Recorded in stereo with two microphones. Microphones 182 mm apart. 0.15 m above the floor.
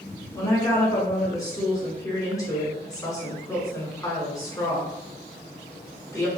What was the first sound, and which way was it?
A woman speaking, 20° left (ahead or behind).